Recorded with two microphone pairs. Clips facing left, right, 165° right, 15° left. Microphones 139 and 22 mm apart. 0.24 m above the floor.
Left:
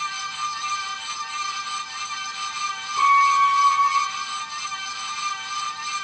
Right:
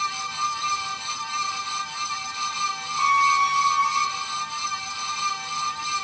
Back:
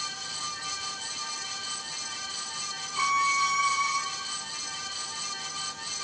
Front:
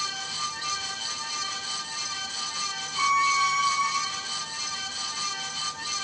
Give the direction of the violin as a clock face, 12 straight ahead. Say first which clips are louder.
Left 3 dB, front 2 dB; 9 o'clock.